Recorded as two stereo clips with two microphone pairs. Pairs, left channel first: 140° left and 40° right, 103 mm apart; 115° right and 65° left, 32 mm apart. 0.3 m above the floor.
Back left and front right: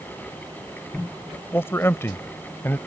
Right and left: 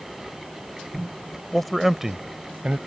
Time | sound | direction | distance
1.5 | a man speaking | 175° left | ?